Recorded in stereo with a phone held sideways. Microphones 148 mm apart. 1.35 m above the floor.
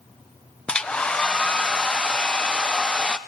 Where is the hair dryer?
5° left (ahead or behind), 0.5 m.